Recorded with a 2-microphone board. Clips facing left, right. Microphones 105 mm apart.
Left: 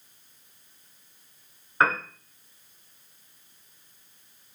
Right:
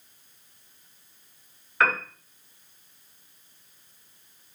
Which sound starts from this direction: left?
A piano, at 1.8 s.